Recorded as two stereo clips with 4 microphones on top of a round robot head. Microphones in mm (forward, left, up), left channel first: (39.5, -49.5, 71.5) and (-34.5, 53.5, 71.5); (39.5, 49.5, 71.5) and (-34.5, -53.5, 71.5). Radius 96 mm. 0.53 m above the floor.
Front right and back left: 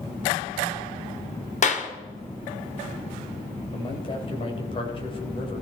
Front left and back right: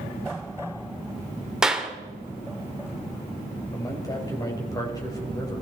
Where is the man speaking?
5° right, 3 m.